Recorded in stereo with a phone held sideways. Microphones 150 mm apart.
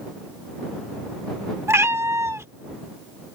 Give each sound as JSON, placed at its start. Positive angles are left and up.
{"t": 1.7, "sound": "a cat meowing", "side_deg": -20}